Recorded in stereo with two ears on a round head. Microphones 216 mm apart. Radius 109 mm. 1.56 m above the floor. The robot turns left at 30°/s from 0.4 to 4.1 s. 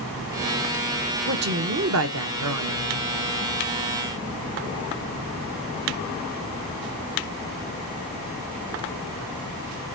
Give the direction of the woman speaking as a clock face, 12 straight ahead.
1 o'clock.